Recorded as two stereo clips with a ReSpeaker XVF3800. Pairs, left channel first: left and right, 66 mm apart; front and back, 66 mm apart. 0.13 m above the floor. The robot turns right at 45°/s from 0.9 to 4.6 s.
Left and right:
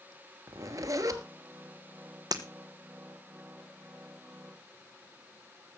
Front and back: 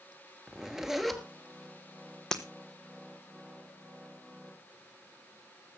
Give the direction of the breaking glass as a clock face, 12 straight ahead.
3 o'clock.